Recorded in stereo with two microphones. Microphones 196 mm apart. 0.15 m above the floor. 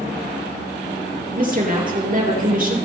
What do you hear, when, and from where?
1.4 s a woman speaking: 45° right (ahead or behind), 4 m